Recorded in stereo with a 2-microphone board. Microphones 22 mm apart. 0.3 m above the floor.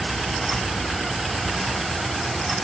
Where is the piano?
No piano in this recording.